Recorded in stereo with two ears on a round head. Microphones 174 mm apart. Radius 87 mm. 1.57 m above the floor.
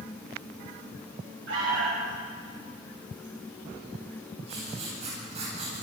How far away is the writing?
About 9.5 m.